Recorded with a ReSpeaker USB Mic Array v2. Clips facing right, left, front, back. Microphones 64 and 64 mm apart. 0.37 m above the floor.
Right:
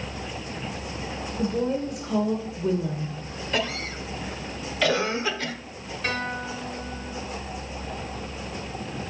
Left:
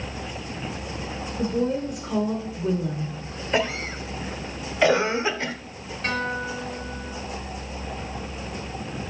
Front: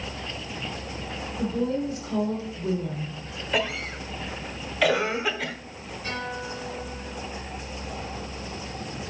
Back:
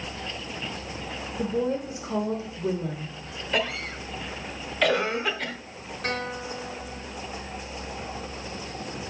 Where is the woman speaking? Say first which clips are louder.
Left 1 dB, even; straight behind, 1.2 m.